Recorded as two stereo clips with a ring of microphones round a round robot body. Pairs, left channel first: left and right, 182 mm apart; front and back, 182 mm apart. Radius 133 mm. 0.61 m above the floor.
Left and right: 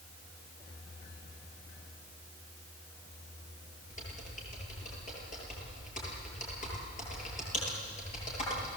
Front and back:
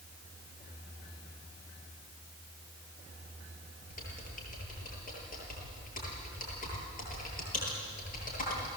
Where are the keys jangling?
I don't hear keys jangling.